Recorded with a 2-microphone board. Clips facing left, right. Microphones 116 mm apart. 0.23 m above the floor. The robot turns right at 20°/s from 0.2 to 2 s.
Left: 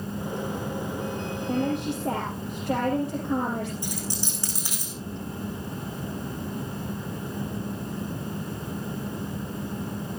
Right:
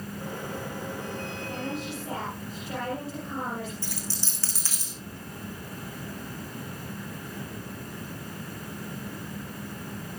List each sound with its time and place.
1.5 s a woman speaking: 50° left (ahead or behind), 6 m; by 3.7 s 60° left (ahead or behind), 6 m
3.8 s a dropped coin: 20° left (ahead or behind), 5 m